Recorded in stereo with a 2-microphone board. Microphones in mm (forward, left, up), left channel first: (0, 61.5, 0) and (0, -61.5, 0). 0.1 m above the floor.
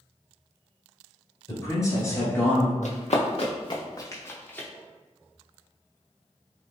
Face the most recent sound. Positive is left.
turn(degrees=10)  # may be behind; listen again after turning